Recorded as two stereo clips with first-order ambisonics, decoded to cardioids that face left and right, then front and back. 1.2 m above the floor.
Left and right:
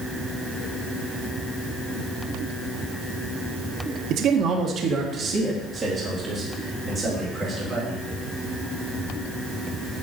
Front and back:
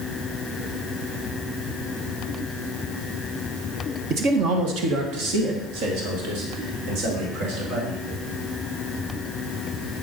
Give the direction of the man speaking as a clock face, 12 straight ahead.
4 o'clock.